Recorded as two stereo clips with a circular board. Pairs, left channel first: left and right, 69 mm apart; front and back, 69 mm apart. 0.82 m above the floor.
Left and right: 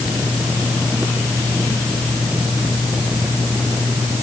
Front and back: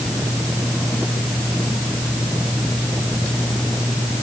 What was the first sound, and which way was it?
Only background noise.